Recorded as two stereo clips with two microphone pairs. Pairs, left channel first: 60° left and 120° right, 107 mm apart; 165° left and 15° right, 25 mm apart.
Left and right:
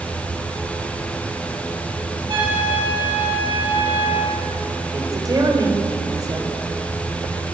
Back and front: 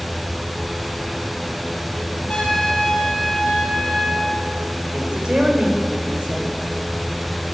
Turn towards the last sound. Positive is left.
turn(degrees=-65)